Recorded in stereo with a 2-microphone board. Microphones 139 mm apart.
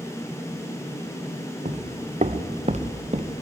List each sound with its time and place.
1.6 s footsteps: 55° right (ahead or behind), 0.9 m